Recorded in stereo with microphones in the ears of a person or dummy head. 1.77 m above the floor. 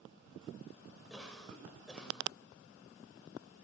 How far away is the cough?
About 6.5 m.